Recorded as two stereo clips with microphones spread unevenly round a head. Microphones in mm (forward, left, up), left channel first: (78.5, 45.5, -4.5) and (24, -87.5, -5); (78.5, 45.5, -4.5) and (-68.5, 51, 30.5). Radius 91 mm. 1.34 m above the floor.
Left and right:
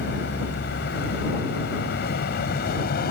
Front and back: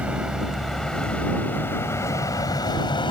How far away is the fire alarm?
No fire alarm in this recording.